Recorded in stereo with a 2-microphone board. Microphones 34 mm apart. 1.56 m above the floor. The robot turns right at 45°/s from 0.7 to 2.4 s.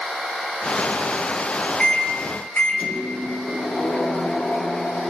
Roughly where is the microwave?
Left.